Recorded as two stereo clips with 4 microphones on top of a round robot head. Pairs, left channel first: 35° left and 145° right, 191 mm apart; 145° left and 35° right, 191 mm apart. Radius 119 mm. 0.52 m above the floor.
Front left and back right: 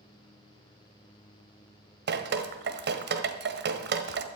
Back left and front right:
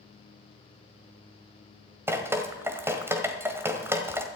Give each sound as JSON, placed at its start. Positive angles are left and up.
{"t": 2.1, "sound": "dripping", "azimuth_deg": -115, "distance_m": 1.5}